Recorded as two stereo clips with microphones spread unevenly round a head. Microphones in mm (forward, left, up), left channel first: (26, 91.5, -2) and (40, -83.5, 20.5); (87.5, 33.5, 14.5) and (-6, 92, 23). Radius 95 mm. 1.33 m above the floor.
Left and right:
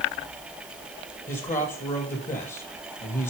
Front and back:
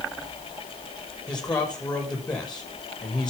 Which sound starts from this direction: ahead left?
A man speaking, at 1.3 s.